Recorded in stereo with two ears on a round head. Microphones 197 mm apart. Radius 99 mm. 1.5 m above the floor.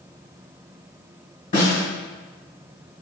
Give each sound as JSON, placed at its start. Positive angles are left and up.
{"t": 1.5, "sound": "a snare drum", "side_deg": 40, "distance_m": 1.8}